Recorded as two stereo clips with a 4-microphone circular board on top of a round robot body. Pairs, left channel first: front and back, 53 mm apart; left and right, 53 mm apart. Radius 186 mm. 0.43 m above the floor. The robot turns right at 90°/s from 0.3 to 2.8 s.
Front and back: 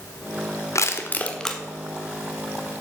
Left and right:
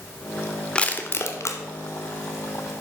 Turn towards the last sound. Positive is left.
turn(degrees=-160)